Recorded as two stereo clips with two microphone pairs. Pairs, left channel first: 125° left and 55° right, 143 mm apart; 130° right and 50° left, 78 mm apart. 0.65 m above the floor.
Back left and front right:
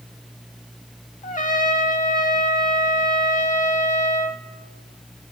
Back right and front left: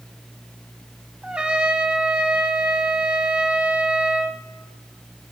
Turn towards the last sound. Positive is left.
turn(degrees=130)